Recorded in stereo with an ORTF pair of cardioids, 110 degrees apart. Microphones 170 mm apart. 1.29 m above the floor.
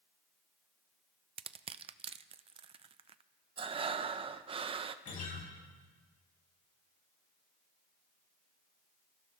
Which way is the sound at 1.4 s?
35° right.